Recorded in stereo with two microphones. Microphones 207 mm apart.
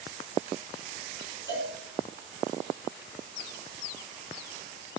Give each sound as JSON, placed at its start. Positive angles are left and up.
{"t": 1.5, "sound": "a cowbell", "side_deg": 55, "distance_m": 3.0}